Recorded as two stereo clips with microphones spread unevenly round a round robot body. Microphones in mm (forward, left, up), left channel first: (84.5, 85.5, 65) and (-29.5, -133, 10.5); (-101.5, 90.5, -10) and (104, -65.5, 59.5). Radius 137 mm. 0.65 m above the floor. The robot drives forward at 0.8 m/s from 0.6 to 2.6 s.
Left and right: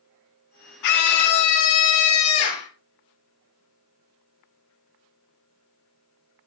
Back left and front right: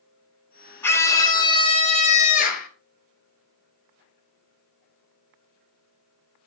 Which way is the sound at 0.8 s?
70° left.